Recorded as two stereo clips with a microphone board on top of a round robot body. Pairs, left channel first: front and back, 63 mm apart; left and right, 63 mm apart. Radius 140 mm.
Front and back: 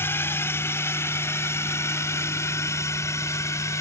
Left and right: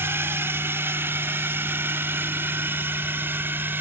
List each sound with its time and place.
0.0 s a drone: 45° right; by 3.8 s 35° right